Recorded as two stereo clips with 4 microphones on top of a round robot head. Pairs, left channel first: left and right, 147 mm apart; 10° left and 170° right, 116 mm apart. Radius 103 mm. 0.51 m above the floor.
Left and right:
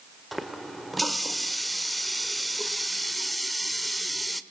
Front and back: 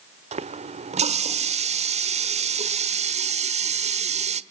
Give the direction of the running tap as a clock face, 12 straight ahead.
6 o'clock.